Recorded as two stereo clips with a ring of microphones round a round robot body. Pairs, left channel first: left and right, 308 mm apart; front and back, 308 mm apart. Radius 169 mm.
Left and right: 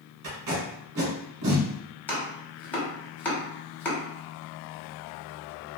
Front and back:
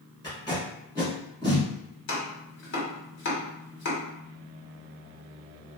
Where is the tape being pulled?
80° right, 1.4 m.